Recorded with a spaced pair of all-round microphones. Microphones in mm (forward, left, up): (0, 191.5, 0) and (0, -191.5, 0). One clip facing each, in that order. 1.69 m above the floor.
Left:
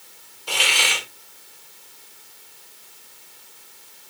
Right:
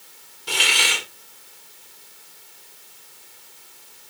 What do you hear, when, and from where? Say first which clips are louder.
0.5 s a hiss: even; 30° right (ahead or behind), 2.5 m